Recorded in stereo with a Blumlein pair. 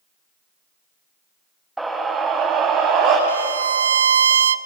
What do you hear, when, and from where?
1.8 s a scream: 5° right, 2.0 m; by 3.2 s 40° right, 3.5 m
3.3 s a violin: 65° right, 0.6 m